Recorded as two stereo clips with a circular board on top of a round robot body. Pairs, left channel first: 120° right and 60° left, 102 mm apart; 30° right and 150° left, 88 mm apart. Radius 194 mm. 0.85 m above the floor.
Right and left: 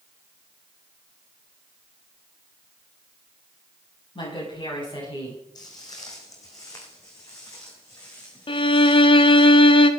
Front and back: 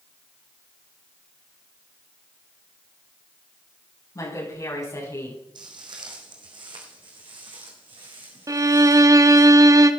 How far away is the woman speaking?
About 9.5 m.